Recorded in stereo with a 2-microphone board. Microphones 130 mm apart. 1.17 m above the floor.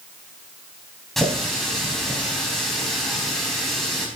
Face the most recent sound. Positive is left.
turn(degrees=0)  # may be behind; listen again after turning